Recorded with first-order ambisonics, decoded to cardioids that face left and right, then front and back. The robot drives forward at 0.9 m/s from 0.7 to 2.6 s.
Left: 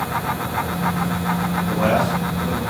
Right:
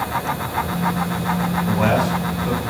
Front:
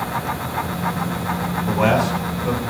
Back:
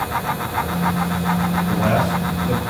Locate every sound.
1.7 s a man speaking: 30° right, 5 m; by 2.6 s 40° right, 4.5 m